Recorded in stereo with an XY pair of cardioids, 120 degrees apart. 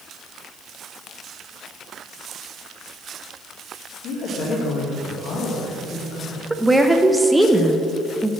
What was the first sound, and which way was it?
A woman speaking, 70° left.